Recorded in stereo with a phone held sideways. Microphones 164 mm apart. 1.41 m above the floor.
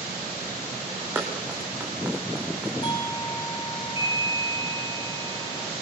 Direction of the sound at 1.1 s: 10° right (ahead or behind).